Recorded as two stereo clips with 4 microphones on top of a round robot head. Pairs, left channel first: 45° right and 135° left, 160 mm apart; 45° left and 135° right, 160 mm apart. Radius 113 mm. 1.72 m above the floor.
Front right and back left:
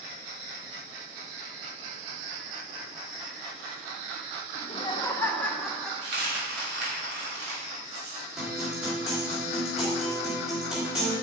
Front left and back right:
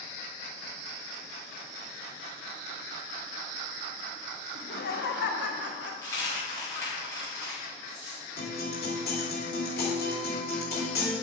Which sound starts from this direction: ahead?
Laughter, at 4.5 s.